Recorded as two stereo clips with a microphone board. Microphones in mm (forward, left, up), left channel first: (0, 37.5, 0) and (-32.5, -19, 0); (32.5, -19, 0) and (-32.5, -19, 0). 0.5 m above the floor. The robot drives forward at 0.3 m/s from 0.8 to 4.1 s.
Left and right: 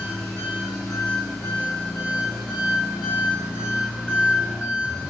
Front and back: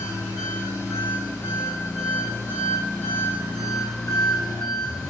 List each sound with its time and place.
0.0 s an engine running: 25° right, 1.5 m; by 5.1 s 80° right, 1.1 m